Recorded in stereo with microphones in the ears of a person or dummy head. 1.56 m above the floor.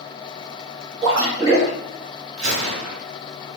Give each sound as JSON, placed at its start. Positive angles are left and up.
{"t": 1.0, "sound": "a splash", "side_deg": -20, "distance_m": 2.0}
{"t": 2.4, "sound": "a gunshot", "side_deg": -75, "distance_m": 1.3}